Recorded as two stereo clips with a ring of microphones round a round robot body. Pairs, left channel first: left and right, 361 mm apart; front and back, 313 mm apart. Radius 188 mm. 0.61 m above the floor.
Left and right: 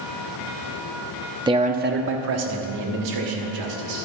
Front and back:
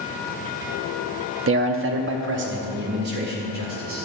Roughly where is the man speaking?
Behind.